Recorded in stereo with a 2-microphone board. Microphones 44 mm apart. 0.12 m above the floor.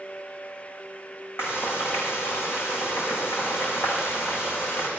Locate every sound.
1.4 s frying: 75° left (ahead or behind), 7 m